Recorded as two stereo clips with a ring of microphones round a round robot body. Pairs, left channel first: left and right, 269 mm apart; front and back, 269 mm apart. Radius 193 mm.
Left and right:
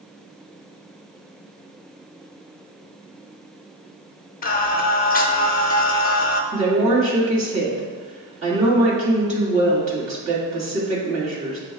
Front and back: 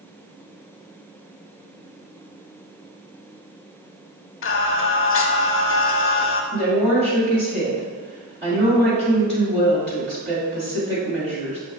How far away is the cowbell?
I don't hear a cowbell.